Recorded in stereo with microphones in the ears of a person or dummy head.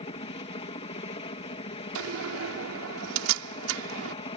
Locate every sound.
0.0 s a helicopter: 35° left (ahead or behind)
1.9 s a door slam: 75° right (ahead or behind)